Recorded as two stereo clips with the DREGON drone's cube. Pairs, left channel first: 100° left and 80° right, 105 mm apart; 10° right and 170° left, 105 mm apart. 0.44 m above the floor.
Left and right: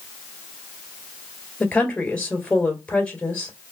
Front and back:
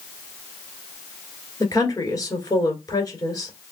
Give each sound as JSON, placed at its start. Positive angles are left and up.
{"t": 1.6, "sound": "a woman speaking", "azimuth_deg": 25, "distance_m": 1.7}